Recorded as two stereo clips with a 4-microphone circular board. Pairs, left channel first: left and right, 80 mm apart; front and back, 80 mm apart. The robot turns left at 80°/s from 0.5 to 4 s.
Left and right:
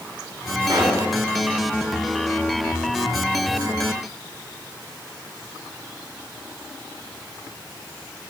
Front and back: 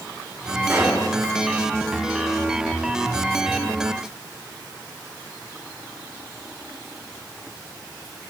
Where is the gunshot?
125° right, 4 m; by 1.2 s 165° right, 4 m.